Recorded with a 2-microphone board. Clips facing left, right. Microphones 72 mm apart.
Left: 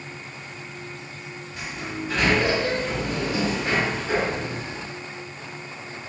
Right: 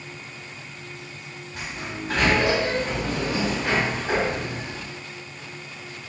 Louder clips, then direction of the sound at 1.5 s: Left 1 dB; 50° right (ahead or behind).